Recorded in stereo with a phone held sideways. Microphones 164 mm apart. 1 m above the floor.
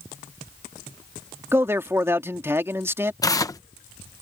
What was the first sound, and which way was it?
A man speaking, 15° right (ahead or behind).